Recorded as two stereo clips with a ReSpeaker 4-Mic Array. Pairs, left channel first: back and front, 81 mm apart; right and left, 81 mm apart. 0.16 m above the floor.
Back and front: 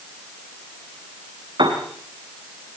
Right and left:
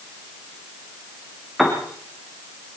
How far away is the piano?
About 4 m.